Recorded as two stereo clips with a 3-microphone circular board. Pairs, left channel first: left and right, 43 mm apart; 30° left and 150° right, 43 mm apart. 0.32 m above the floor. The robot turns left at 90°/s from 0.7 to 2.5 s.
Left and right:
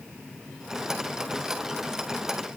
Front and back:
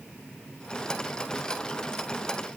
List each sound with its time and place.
Only background noise.